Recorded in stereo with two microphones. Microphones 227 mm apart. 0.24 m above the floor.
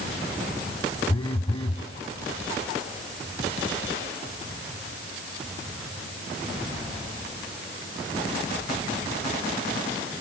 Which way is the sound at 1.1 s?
25° left (ahead or behind).